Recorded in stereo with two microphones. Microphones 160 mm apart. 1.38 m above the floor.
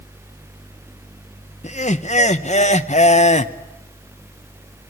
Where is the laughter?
45° left (ahead or behind), 0.7 m.